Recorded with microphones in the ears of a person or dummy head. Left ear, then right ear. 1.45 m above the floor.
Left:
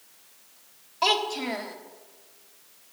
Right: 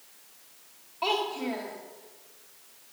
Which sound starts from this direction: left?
A child speaking, at 1.0 s.